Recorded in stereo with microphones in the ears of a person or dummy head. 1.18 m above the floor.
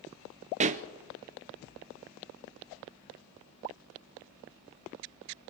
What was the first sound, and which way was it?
A pop, 35° right (ahead or behind).